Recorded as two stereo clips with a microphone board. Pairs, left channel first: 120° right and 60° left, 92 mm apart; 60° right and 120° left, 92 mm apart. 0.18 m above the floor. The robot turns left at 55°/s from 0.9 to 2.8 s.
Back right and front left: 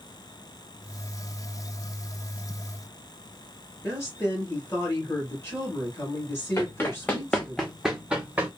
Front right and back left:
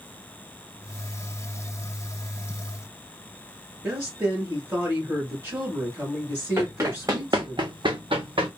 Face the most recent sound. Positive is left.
turn(degrees=130)